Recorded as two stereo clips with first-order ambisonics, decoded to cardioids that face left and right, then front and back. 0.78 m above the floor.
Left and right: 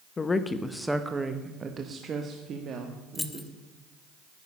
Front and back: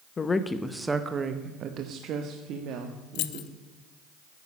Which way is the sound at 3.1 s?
10° left.